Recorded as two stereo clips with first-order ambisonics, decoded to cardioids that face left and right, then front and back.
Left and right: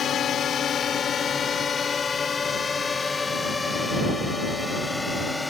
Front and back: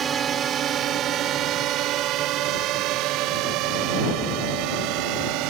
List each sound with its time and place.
0.0 s a drone: 130° left; by 5.5 s 175° left